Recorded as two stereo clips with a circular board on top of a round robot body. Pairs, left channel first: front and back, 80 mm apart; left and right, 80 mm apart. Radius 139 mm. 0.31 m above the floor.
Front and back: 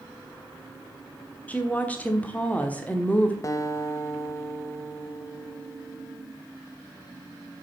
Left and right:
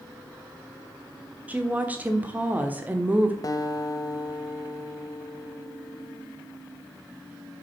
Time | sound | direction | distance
1.5 | a woman speaking | 45° right | 1.4 m
3.4 | a guitar | 50° left | 1.0 m